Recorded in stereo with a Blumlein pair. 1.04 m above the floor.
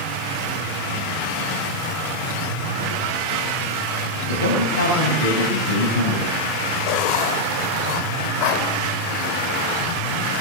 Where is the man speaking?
65° left, 7.5 m.